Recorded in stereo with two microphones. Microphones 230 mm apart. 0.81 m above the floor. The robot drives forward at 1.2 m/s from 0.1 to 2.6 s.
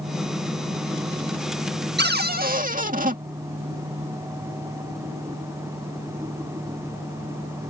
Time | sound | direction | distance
2.0 | a cupboard door | 45° right (ahead or behind) | ?